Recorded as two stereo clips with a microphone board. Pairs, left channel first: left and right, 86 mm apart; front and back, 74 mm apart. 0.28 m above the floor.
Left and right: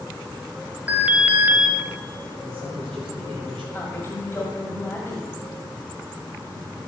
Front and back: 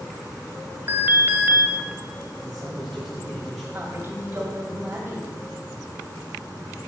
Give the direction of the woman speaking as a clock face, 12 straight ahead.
7 o'clock.